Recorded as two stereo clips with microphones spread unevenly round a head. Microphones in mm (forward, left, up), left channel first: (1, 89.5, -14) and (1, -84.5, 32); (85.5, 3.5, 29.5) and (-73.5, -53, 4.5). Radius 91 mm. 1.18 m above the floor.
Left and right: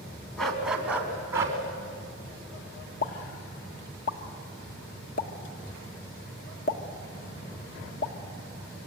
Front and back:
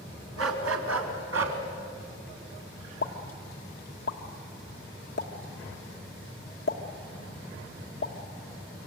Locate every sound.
0.4 s a dog barking: 175° right, 3 m; by 1.6 s 155° right, 3.5 m
3.0 s a pop: 60° left, 1.6 m